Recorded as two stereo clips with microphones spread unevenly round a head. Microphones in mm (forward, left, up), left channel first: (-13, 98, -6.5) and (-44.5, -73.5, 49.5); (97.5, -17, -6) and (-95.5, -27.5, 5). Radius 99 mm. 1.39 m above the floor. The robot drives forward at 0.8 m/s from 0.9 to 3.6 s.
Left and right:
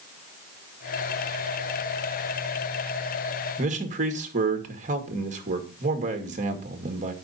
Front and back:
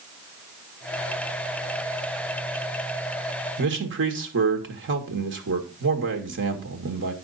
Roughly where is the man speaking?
Behind right.